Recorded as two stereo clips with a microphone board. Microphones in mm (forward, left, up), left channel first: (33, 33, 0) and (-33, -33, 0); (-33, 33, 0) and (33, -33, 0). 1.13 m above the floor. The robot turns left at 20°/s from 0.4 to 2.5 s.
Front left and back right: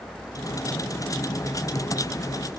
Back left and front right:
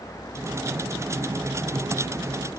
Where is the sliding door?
I don't hear a sliding door.